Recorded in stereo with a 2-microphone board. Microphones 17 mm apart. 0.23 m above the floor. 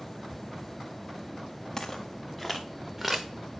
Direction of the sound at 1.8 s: 25° left (ahead or behind).